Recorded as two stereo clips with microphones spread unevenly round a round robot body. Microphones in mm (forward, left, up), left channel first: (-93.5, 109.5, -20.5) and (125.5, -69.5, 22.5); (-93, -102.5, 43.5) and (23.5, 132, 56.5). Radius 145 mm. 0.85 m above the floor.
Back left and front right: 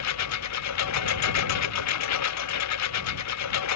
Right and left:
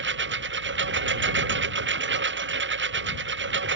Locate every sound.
0.0 s a lawn mower: 110° left